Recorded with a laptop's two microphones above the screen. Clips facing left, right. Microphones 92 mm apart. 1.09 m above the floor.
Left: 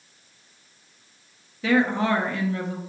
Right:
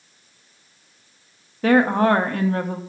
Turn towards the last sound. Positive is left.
turn(degrees=-50)  # may be behind; listen again after turning